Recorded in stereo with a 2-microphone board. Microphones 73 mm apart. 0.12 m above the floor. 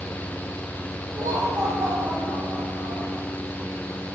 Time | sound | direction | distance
1.1 | laughter | 50° right (ahead or behind) | 6 m